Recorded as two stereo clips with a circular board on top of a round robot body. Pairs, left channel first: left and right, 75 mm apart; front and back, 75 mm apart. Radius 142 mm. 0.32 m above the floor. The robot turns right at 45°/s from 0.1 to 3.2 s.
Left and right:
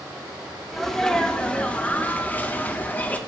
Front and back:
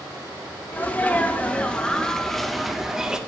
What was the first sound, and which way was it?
A sneeze, 5° left.